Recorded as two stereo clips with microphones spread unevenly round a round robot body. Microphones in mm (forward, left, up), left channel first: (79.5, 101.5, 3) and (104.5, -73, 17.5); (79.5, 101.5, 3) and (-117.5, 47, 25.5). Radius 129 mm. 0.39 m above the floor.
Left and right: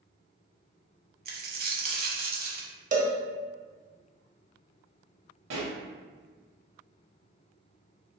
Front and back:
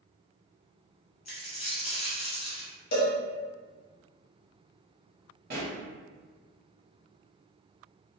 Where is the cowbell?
35° right, 0.8 m.